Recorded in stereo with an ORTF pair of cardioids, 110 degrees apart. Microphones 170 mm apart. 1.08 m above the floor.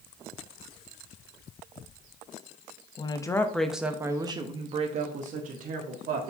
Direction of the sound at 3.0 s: 30° left.